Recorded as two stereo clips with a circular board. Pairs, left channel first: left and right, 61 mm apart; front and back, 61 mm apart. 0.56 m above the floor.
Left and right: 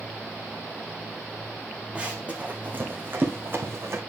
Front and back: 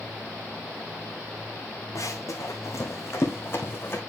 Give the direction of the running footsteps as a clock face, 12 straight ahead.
1 o'clock.